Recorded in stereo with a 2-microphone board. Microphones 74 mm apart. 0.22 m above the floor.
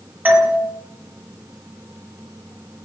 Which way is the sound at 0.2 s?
25° right (ahead or behind).